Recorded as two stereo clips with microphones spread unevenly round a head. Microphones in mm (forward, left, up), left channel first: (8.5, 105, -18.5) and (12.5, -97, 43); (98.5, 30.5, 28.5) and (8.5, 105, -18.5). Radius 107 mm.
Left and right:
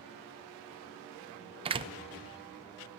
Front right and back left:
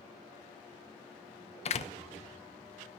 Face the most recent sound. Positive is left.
turn(degrees=-30)